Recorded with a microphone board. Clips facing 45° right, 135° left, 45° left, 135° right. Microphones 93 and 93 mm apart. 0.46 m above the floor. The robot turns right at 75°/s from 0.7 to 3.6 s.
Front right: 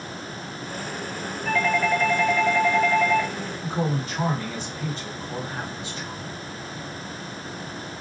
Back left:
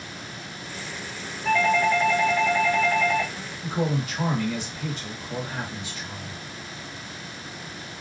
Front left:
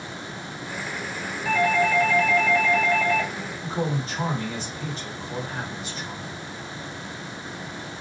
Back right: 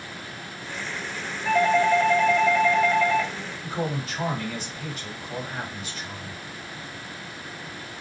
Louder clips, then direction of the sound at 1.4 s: Back left 2 dB, back right 2 dB; 150° left.